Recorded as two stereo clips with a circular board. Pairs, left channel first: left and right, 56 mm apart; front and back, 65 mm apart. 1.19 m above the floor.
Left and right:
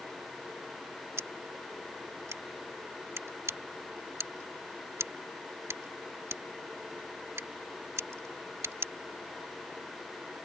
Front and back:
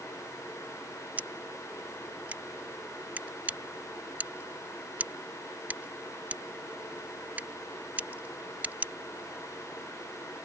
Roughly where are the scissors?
Behind right.